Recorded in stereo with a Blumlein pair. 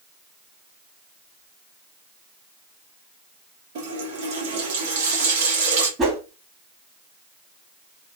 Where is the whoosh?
20° right, 1.3 m.